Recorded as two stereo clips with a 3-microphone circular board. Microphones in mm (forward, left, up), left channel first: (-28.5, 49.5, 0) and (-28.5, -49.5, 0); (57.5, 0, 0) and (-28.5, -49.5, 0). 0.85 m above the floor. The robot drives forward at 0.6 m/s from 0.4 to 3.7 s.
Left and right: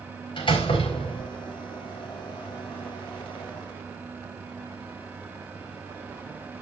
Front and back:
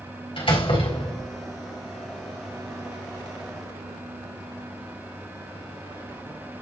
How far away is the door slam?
About 4 m.